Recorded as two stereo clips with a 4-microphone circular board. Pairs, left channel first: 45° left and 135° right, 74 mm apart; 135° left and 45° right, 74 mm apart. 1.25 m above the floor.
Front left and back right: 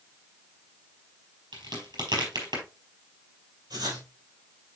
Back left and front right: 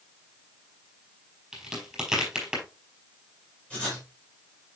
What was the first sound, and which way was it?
A crack, 130° right.